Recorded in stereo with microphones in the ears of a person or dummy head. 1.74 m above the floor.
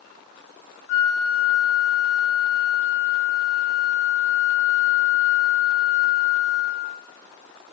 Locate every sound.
0.9 s a flute: 55° left (ahead or behind), 0.9 m